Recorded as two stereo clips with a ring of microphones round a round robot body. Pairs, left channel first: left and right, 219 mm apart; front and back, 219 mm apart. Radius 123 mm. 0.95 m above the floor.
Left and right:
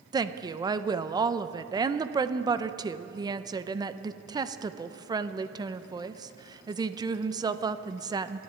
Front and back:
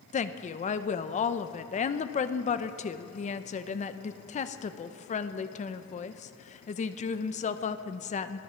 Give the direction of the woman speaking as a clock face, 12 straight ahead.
1 o'clock.